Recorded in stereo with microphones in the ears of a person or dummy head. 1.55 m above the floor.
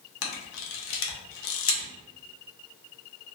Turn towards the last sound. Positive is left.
turn(degrees=70)  # may be behind; listen again after turning